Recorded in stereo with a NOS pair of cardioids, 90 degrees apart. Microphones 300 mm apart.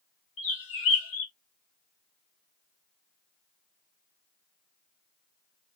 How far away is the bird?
About 1.1 m.